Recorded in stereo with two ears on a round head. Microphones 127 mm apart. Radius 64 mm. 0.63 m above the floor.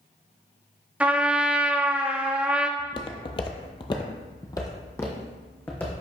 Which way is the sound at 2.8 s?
30° left (ahead or behind).